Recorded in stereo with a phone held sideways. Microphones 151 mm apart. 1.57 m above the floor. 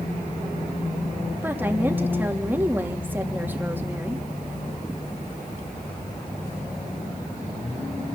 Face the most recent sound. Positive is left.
turn(degrees=-10)  # may be behind; listen again after turning